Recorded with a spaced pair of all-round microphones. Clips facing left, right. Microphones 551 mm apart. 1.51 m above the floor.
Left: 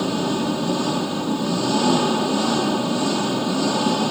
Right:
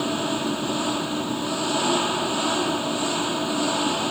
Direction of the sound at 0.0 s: 60° left (ahead or behind).